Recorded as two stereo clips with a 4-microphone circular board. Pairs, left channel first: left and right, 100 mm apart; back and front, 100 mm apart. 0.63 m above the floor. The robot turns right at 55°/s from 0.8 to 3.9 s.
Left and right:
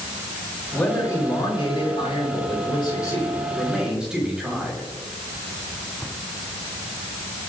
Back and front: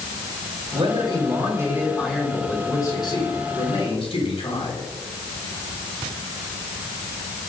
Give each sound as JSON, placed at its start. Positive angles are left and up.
{"t": 0.7, "sound": "a man speaking", "azimuth_deg": 20, "distance_m": 5.0}